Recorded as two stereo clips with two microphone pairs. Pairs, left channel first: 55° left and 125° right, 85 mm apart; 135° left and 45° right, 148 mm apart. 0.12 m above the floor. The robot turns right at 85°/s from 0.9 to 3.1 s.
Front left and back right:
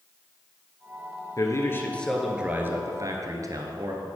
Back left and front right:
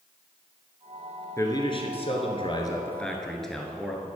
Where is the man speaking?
75° left, 1.5 m; by 4.0 s 140° right, 1.5 m.